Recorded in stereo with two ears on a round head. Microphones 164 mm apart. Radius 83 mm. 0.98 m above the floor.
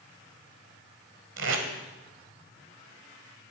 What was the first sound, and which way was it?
Tape being pulled, 70° right (ahead or behind).